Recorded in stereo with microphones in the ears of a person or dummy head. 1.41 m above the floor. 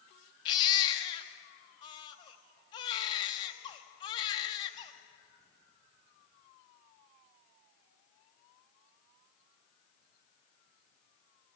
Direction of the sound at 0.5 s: 30° left (ahead or behind).